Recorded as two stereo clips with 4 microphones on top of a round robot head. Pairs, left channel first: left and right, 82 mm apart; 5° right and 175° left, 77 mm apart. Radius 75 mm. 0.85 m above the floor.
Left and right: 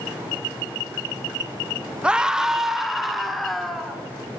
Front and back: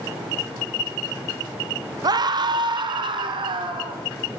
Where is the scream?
165° right, 1.8 m; by 4.0 s straight behind, 4 m.